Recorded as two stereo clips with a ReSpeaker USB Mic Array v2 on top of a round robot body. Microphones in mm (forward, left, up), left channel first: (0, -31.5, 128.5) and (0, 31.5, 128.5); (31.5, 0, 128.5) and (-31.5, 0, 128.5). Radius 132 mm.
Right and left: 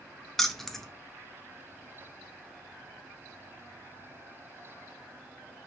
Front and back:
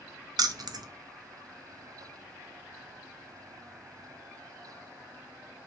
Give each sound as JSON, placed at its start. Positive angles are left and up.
{"t": 0.4, "sound": "keys jangling", "azimuth_deg": -175, "distance_m": 0.5}